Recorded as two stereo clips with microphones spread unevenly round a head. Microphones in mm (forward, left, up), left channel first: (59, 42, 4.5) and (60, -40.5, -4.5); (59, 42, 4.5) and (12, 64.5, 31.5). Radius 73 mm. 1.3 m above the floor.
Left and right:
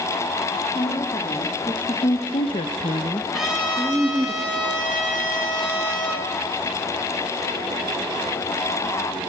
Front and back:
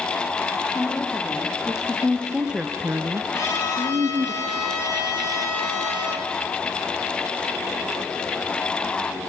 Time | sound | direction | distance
0.8 | a woman speaking | 55° left | 2.5 m
3.3 | a trumpet | straight ahead | 9 m